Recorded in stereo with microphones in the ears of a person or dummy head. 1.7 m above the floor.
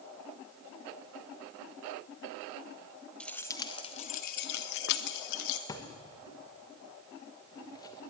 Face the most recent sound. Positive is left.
turn(degrees=20)  # may be behind; listen again after turning